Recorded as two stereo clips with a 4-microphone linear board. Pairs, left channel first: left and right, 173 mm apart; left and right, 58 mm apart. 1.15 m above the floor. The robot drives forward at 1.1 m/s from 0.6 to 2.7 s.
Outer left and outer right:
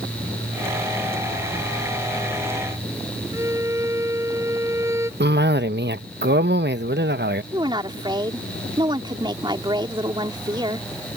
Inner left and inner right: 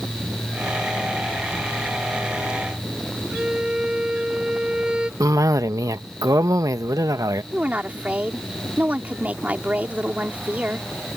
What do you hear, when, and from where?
3.3 s a violin: 15° right (ahead or behind)
5.2 s a cough: 80° right
7.5 s a woman speaking: 25° right (ahead or behind)